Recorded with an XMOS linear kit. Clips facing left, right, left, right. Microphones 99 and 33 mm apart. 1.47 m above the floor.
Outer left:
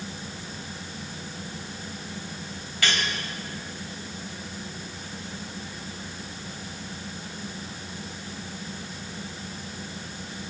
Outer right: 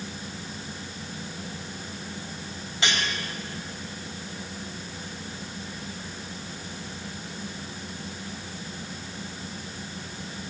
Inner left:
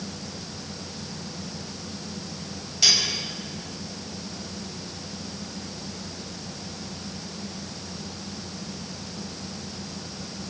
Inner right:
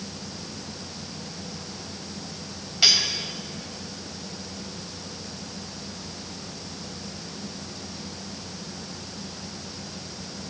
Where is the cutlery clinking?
25° right (ahead or behind), 5.5 m.